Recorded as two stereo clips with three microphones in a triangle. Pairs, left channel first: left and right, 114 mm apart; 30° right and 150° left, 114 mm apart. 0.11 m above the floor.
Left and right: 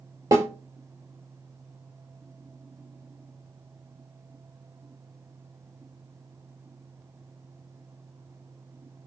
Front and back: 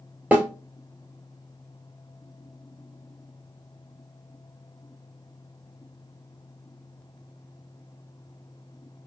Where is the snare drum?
135° right, 0.8 m.